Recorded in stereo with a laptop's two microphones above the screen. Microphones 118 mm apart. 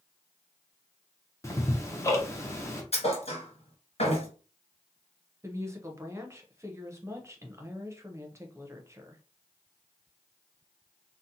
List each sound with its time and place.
1.4 s ticking: 25° left (ahead or behind), 0.5 m
2.9 s a thud: 60° left (ahead or behind), 1.7 m
5.4 s a woman speaking: 25° right (ahead or behind), 0.6 m